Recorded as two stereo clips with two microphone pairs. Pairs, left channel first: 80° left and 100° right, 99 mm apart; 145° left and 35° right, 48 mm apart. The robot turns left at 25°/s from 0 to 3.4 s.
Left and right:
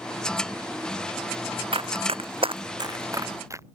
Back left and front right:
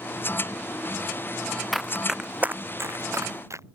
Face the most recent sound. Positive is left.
turn(degrees=-40)